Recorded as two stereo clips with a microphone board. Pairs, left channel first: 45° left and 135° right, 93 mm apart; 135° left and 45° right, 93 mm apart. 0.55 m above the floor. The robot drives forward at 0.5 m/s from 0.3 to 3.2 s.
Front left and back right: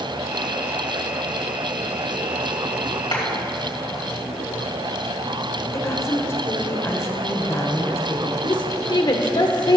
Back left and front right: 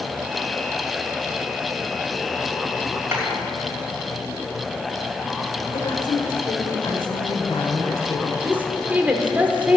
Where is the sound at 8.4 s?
25° left, 1.1 m.